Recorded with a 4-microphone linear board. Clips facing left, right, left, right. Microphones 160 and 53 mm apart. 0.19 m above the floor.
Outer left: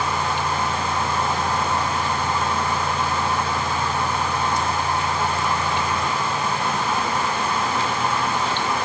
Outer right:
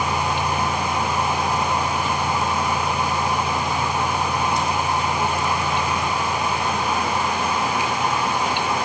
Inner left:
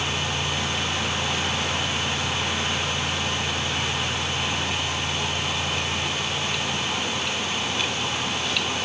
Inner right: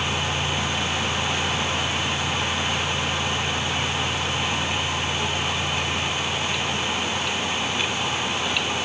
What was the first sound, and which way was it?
Only background noise.